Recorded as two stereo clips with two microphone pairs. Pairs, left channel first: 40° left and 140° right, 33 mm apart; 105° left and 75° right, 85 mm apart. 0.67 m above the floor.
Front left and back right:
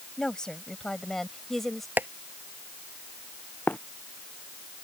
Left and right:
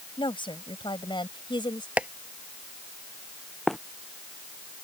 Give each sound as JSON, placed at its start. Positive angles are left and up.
{"t": 0.2, "sound": "a woman speaking", "azimuth_deg": 105}
{"t": 2.0, "sound": "tapping", "azimuth_deg": -150}
{"t": 3.7, "sound": "running footsteps", "azimuth_deg": 20}